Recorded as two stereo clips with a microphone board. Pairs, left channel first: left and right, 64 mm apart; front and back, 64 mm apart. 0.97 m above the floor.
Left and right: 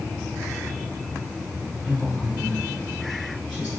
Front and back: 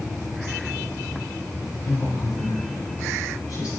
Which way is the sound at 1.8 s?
Straight ahead.